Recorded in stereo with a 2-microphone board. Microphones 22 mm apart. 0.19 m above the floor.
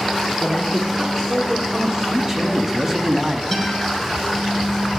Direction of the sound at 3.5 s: 20° left (ahead or behind).